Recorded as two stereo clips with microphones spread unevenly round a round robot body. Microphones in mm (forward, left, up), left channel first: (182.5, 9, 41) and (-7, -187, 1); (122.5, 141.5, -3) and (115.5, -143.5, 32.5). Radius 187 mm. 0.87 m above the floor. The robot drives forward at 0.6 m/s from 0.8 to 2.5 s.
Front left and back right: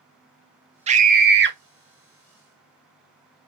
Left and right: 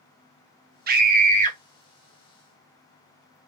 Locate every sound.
0.9 s a scream: 130° right, 0.6 m; by 1.6 s 160° right, 0.8 m